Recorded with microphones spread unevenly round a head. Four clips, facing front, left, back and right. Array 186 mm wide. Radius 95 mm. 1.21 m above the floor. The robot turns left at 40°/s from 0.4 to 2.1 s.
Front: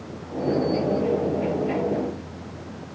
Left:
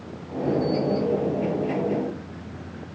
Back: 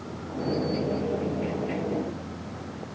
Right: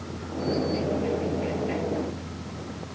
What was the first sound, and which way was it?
Only background noise.